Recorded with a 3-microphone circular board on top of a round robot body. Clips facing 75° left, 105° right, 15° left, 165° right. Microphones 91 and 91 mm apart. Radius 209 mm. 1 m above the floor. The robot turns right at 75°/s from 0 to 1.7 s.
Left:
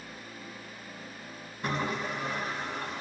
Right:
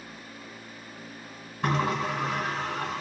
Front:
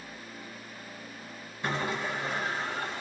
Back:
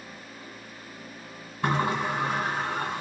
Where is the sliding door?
130° right, 1.5 m; by 3.0 s 125° right, 1.5 m.